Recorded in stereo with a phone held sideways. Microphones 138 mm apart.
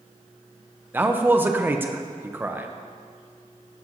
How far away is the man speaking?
About 0.5 m.